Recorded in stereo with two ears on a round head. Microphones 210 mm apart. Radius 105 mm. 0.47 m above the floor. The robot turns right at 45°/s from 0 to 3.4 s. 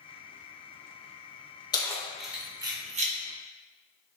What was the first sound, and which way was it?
Keys jangling, 20° left (ahead or behind).